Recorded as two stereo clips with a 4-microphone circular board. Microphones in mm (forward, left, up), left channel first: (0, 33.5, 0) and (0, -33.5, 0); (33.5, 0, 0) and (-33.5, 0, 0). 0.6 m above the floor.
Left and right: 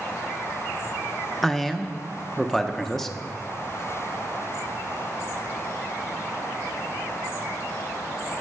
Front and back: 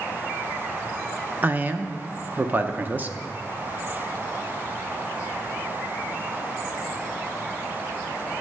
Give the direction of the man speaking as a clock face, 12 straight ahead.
6 o'clock.